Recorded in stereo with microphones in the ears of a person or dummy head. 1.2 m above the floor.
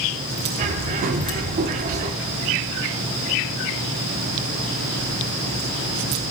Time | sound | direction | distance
0.6 | a bird | 45° right (ahead or behind) | 1.0 m